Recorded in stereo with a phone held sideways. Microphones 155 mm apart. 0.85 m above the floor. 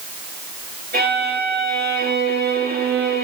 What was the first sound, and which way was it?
A violin, 70° right (ahead or behind).